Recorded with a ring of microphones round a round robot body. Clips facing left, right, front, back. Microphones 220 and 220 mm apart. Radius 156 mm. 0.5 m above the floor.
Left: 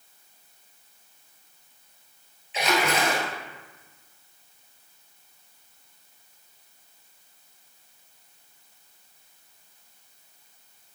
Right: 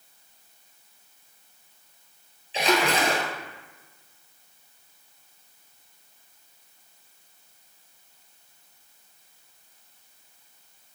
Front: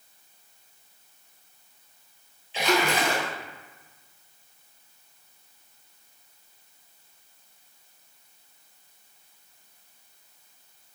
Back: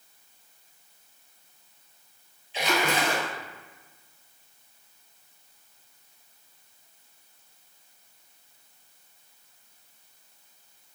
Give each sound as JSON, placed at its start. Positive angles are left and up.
{"t": 2.5, "sound": "a splash", "azimuth_deg": -30, "distance_m": 1.6}